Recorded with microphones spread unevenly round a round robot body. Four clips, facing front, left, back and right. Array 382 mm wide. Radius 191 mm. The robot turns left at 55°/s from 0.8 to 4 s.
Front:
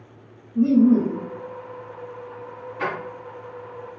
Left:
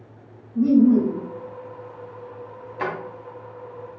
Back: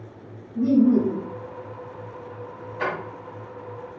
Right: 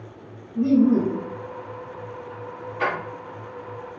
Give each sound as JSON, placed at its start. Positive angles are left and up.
{"t": 0.6, "sound": "laughter", "azimuth_deg": 25, "distance_m": 1.2}
{"t": 2.8, "sound": "a drawer", "azimuth_deg": 60, "distance_m": 1.6}